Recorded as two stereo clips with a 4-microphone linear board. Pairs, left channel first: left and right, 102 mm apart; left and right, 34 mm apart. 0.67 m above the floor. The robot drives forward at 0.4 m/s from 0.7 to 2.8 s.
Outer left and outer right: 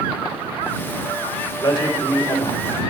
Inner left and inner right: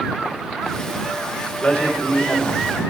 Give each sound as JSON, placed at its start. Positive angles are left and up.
{"t": 1.6, "sound": "a man speaking", "side_deg": 55, "distance_m": 3.0}